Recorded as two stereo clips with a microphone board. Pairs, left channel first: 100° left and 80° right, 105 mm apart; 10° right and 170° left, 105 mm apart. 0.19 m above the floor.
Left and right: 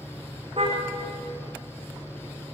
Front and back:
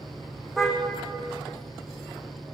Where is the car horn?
105° right, 6 m.